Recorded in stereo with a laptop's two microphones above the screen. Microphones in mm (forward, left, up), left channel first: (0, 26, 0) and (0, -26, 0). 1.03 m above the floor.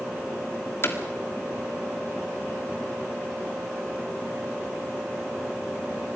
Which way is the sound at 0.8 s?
50° left (ahead or behind).